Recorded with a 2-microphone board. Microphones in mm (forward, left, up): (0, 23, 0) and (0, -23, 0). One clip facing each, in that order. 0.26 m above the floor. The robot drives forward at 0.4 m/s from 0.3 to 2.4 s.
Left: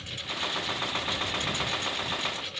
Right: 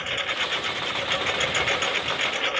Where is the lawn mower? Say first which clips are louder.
Right 8 dB; 50° right (ahead or behind); by 2.6 s 55° right (ahead or behind).